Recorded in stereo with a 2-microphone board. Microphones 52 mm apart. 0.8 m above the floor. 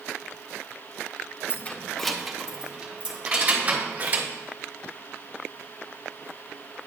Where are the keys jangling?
35° left (ahead or behind), 0.5 m; by 4.3 s 35° right (ahead or behind), 1.7 m.